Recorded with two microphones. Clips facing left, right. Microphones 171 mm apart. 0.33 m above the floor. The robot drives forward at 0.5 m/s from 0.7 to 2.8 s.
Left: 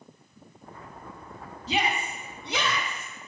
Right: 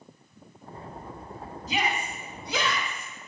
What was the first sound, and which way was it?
A shout, 30° left (ahead or behind).